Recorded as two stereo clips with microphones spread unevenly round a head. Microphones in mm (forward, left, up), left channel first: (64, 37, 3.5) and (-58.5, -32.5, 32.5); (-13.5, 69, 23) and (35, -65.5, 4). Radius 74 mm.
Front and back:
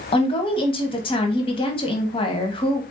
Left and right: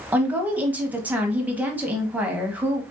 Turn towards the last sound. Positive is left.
turn(degrees=0)